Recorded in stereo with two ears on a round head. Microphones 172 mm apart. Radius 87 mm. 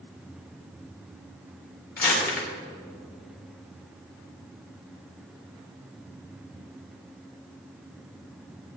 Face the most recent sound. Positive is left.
turn(degrees=50)  # may be behind; listen again after turning